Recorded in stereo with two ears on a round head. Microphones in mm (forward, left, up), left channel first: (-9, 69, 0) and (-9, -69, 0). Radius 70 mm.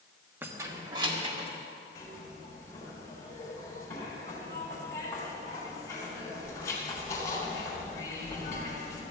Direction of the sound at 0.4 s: 10° right (ahead or behind).